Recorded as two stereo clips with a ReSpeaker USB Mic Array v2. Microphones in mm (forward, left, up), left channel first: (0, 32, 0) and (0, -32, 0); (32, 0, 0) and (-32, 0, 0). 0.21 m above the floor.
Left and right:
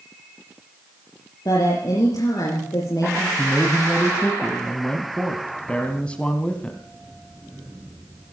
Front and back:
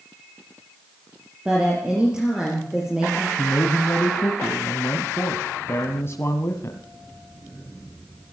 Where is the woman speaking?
100° left, 5 m.